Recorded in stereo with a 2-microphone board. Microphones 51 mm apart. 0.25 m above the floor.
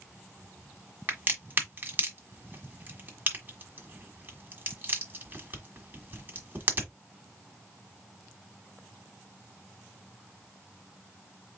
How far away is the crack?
About 1.5 m.